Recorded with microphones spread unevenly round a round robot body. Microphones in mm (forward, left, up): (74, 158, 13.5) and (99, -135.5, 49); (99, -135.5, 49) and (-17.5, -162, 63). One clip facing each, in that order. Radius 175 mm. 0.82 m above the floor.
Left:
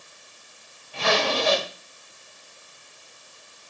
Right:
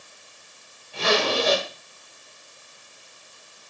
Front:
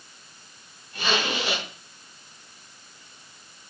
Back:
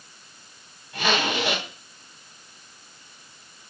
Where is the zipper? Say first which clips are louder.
Right 2 dB, back 3 dB; 170° right, 5 m.